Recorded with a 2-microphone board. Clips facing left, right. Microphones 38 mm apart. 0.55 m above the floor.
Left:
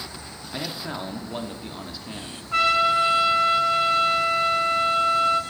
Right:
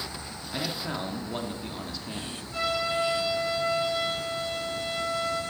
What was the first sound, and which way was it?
A man speaking, 5° left (ahead or behind).